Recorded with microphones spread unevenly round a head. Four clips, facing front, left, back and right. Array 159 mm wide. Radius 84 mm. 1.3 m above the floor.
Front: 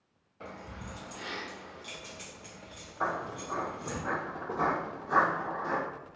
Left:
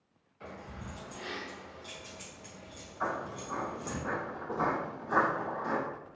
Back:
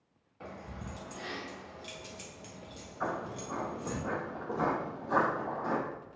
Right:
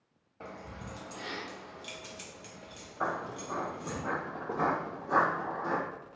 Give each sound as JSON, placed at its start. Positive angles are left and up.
{"t": 0.4, "sound": "keys jangling", "azimuth_deg": -90, "distance_m": 1.4}
{"t": 3.0, "sound": "footsteps", "azimuth_deg": -55, "distance_m": 1.6}